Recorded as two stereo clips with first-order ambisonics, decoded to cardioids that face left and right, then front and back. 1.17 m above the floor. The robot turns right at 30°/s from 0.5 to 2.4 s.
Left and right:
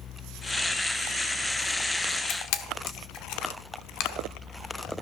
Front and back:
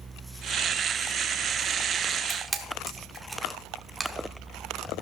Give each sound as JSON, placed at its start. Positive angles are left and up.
{"t": 2.3, "sound": "a camera shutter", "azimuth_deg": 95, "distance_m": 1.1}